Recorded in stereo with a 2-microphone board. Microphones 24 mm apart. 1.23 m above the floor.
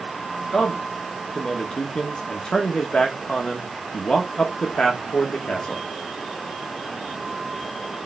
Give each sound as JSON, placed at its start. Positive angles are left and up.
{"t": 0.5, "sound": "a man speaking", "side_deg": 30, "distance_m": 2.0}